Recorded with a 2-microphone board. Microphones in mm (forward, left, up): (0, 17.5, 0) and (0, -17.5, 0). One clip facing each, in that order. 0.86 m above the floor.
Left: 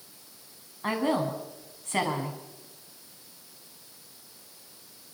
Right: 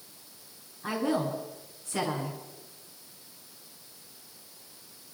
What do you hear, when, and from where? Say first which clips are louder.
0.8 s a woman speaking: left 2 dB; 55° left (ahead or behind), 7 m